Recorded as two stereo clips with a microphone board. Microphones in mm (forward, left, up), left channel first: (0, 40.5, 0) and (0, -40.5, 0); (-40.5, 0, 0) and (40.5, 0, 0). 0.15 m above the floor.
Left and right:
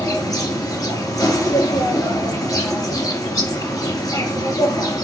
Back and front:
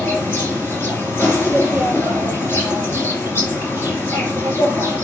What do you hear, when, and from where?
0.0 s an insect: 125° left, 3 m